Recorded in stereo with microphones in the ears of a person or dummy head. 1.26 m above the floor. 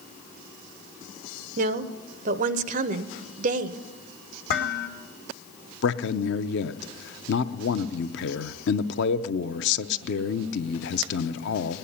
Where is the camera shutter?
I don't hear a camera shutter.